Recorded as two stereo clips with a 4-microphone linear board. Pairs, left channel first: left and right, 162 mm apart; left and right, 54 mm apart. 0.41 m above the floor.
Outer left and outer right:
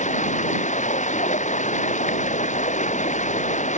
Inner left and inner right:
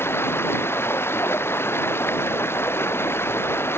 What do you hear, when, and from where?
0.0 s running water: 50° left (ahead or behind)